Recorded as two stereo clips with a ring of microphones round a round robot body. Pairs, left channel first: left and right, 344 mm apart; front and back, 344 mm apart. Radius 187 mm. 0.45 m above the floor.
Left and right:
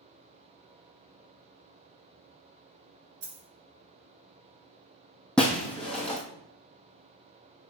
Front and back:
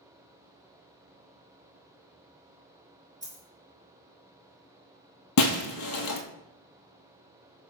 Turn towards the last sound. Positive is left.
turn(degrees=5)